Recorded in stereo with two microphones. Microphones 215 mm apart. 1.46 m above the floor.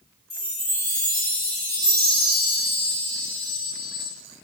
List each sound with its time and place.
0.3 s a chime: 80° left, 3 m